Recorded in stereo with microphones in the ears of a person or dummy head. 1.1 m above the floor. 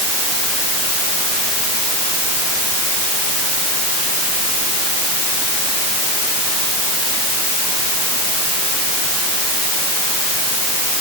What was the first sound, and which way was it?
Only background noise.